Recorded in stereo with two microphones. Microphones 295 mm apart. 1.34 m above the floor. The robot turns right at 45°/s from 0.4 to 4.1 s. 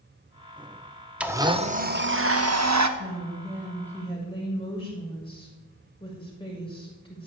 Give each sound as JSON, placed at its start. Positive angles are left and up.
{"t": 1.2, "sound": "a blender", "azimuth_deg": -175, "distance_m": 1.2}
{"t": 3.0, "sound": "a woman speaking", "azimuth_deg": -35, "distance_m": 7.0}